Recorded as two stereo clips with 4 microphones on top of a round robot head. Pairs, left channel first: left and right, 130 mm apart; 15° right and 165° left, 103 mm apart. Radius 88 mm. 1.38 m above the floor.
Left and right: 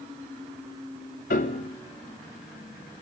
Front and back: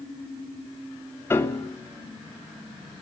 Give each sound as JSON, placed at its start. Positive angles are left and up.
{"t": 1.3, "sound": "a piano", "azimuth_deg": 55, "distance_m": 2.5}